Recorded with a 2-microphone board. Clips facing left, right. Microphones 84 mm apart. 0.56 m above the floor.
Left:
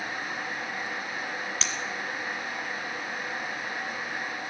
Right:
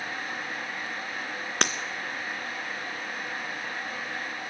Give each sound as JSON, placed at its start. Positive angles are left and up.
{"t": 1.6, "sound": "breaking glass", "side_deg": -60, "distance_m": 1.2}